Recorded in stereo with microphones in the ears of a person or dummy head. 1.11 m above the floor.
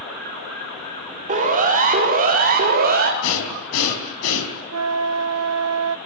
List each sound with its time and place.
1.3 s a siren: 35° right (ahead or behind), 4.5 m; by 3.1 s 45° right (ahead or behind), 3.5 m
3.2 s breathing: 75° left (ahead or behind), 4.5 m
4.7 s a flute: 70° right (ahead or behind), 0.8 m